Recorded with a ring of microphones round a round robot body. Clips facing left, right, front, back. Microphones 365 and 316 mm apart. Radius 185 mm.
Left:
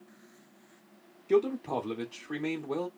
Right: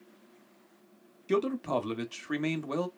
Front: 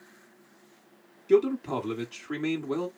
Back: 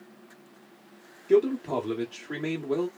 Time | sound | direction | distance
1.3 | a man speaking | 75° right | 1.1 m